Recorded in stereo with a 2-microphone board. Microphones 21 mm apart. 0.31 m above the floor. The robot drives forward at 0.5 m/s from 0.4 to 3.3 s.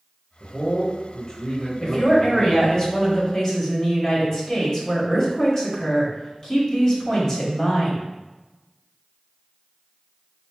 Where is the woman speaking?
30° left (ahead or behind), 1.4 m; by 8.0 s 25° left (ahead or behind), 1.8 m.